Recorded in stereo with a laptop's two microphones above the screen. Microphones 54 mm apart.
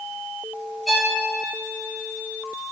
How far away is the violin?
About 2.5 m.